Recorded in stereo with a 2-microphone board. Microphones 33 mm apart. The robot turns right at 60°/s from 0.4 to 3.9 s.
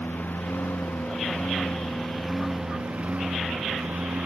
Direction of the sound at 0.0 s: 70° left.